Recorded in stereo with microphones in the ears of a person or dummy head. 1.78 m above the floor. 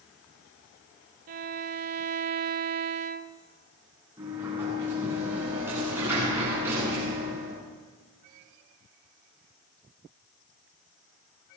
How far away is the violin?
About 0.6 m.